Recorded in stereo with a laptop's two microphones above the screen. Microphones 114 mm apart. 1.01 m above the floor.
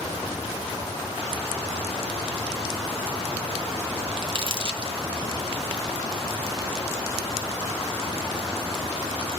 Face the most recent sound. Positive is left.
turn(degrees=-50)  # may be behind; listen again after turning